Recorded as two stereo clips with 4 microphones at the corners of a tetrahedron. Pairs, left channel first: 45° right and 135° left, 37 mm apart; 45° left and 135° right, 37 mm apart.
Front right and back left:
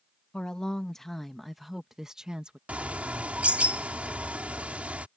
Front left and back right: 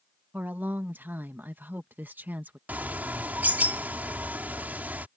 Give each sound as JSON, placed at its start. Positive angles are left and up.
{"t": 0.3, "sound": "a woman speaking", "azimuth_deg": -110}
{"t": 2.7, "sound": "a bird", "azimuth_deg": -170}